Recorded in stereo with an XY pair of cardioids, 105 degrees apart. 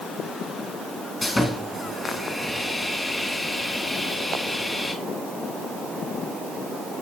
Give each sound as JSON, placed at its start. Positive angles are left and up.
{"t": 1.2, "sound": "sawing", "azimuth_deg": 15, "distance_m": 2.0}